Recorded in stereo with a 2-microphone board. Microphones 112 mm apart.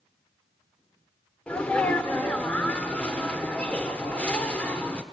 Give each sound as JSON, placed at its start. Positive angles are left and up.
{"t": 1.5, "sound": "a sneeze", "side_deg": 10, "distance_m": 1.1}